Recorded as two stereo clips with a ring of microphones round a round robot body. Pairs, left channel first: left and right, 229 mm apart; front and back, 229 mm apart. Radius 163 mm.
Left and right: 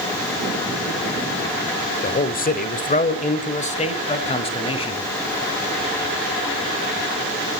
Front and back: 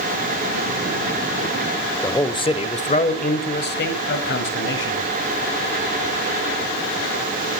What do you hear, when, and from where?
2.0 s a man speaking: 75° left, 1.0 m; by 5.1 s 25° left, 2 m